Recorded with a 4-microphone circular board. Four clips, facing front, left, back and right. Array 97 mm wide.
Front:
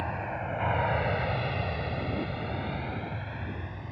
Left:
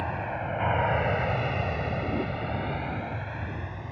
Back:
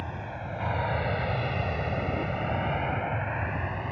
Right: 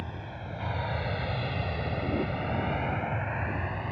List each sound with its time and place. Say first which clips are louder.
0.0 s an aircraft: left 9 dB, front 4 dB; 60° left; by 3.9 s 155° right